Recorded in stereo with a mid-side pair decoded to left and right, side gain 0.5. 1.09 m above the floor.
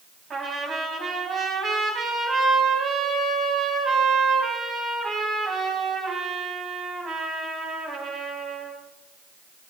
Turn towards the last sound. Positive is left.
turn(degrees=-45)